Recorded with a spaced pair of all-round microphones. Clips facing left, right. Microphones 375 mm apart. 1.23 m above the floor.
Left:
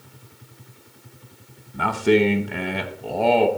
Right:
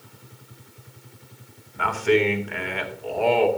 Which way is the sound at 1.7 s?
50° left (ahead or behind).